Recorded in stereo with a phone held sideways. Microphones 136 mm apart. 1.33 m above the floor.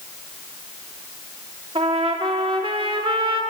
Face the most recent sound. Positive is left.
turn(degrees=-40)  # may be behind; listen again after turning